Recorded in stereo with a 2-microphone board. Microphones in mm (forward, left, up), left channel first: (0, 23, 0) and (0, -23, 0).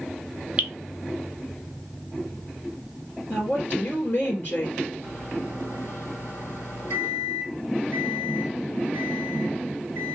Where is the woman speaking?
50° left (ahead or behind), 2.5 m.